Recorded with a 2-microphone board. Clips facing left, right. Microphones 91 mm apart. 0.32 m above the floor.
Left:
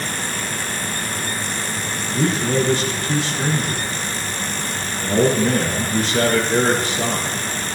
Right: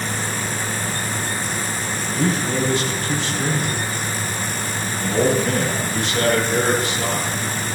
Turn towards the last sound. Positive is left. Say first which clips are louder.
# left 2 dB
turn(degrees=40)  # may be behind; listen again after turning